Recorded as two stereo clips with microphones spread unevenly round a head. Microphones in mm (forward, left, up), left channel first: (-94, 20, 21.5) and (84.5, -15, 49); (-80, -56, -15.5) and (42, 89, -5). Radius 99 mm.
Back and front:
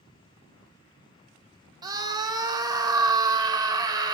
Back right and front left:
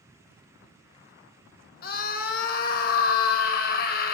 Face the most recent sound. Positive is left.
turn(degrees=-85)